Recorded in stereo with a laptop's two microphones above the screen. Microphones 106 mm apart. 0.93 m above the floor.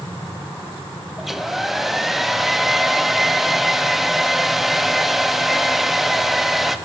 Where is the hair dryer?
5° right (ahead or behind), 0.7 m.